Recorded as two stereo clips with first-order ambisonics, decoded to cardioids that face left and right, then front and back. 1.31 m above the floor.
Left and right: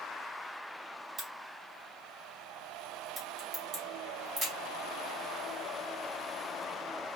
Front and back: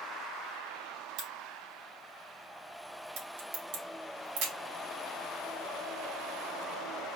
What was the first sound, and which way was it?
A crack, 165° right.